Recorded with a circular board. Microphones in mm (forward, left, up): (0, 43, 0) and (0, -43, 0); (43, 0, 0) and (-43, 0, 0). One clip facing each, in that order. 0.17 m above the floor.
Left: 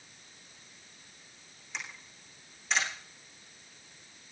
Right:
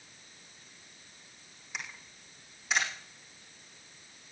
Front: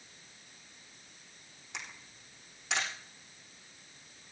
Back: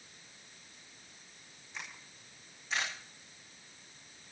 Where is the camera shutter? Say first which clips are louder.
Even, front 1 dB; 5° right, 9 m.